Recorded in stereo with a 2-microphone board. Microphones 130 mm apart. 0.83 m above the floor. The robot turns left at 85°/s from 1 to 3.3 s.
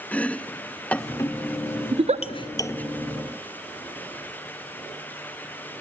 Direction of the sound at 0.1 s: 10° left (ahead or behind).